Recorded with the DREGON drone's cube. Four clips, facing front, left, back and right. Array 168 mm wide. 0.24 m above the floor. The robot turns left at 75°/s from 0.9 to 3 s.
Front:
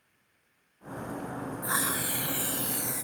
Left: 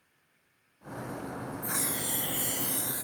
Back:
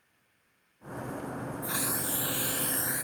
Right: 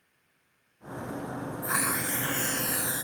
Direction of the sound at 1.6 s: 40° right.